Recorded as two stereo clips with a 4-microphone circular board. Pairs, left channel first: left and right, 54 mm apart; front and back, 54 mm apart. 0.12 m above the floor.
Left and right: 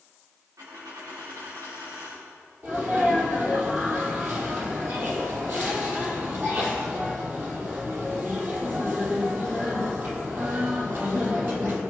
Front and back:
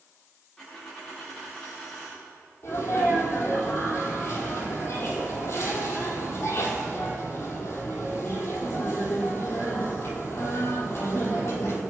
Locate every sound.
0.6 s a dropped coin: 85° right, 6.5 m
2.6 s a sneeze: 40° right, 4.5 m